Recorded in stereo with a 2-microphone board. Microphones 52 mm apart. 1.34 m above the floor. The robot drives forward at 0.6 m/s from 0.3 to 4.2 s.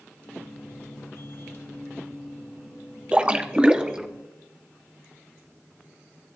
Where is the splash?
20° right (ahead or behind), 0.8 m; by 4.1 s 15° right (ahead or behind), 1.1 m.